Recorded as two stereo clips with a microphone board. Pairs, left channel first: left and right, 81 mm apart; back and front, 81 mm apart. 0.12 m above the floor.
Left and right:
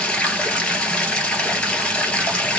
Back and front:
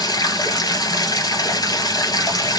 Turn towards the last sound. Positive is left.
turn(degrees=165)